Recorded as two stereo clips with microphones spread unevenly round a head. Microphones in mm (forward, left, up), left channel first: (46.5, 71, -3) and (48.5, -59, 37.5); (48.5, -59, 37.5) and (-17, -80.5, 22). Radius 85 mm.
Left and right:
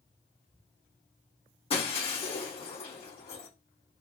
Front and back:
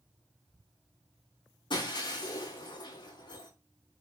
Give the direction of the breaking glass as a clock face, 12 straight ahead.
11 o'clock.